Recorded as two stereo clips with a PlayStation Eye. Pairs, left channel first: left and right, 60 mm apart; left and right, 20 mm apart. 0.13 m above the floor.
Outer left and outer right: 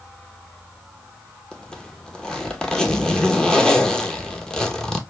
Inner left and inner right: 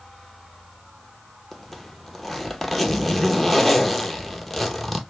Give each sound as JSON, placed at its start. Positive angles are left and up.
{"t": 1.5, "sound": "a zipper", "side_deg": 10, "distance_m": 0.7}